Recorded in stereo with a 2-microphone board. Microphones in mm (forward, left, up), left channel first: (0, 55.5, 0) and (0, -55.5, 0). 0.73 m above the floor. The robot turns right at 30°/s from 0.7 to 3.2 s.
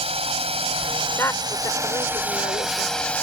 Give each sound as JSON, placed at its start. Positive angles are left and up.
{"t": 0.0, "sound": "a drone", "azimuth_deg": -60}
{"t": 1.2, "sound": "a woman speaking", "azimuth_deg": 25}